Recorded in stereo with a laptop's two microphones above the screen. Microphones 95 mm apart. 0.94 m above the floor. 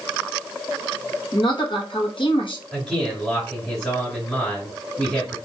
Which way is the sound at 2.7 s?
10° left (ahead or behind).